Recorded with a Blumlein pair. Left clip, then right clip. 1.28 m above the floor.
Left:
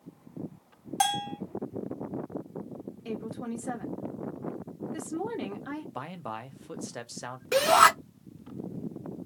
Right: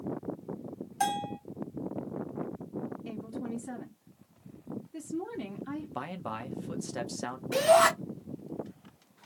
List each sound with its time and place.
1.0 s a bell: 45° left, 1.2 m
3.0 s a woman speaking: 45° left, 1.8 m
6.0 s a man speaking: straight ahead, 0.7 m
7.5 s a shout: 35° left, 2.5 m